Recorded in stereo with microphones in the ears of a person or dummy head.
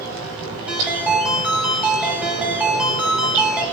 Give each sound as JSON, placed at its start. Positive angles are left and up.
{"t": 0.7, "sound": "a ringtone", "side_deg": -10, "distance_m": 2.5}